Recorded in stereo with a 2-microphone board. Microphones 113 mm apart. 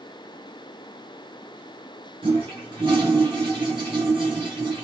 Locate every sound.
2.2 s a toilet flushing: 45° right (ahead or behind), 2.5 m